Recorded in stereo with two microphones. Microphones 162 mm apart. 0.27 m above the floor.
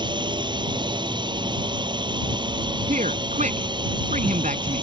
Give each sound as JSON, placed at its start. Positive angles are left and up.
{"t": 0.0, "sound": "a drone", "side_deg": -30}
{"t": 2.9, "sound": "a man speaking", "side_deg": -50}